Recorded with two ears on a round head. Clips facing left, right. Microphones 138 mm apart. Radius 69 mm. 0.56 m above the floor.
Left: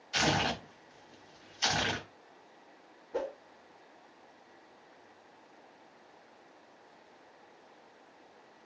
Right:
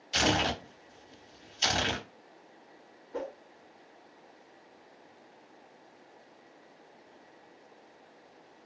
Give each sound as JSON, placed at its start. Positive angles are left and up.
{"t": 0.1, "sound": "tearing paper", "side_deg": -35, "distance_m": 0.7}
{"t": 3.1, "sound": "a whoosh", "side_deg": 25, "distance_m": 0.9}